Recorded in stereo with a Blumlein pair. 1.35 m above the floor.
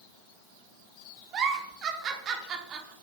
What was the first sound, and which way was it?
A giggle, 30° right.